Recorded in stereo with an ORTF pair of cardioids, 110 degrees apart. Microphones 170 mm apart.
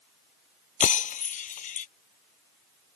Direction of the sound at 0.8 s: 50° left.